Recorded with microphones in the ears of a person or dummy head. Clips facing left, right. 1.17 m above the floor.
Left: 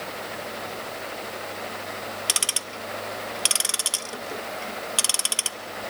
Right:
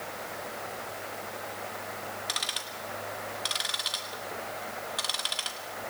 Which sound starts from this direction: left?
Ticking, at 2.3 s.